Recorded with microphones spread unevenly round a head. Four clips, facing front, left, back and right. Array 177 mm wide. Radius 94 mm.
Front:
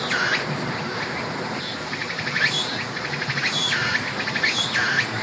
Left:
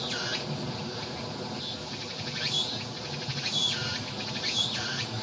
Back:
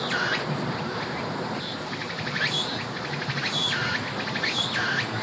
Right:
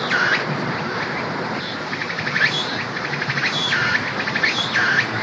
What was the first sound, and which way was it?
An insect, 75° right.